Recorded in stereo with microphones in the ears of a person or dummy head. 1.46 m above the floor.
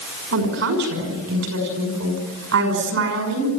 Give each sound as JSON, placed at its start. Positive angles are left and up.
{"t": 0.3, "sound": "a woman speaking", "side_deg": -80, "distance_m": 6.0}